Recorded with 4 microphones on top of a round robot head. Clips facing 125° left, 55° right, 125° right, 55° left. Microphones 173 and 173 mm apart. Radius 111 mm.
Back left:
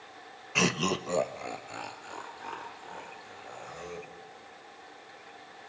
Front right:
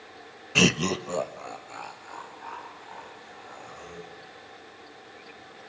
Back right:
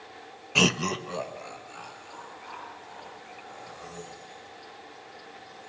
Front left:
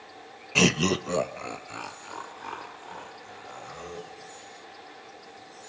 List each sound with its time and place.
0.6 s laughter: 30° right, 0.6 m; by 4.1 s 70° left, 4 m